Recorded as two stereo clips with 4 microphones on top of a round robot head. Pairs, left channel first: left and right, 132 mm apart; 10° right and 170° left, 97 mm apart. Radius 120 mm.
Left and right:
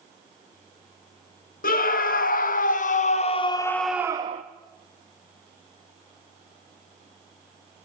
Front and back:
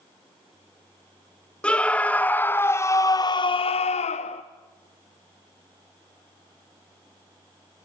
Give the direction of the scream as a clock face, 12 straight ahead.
10 o'clock.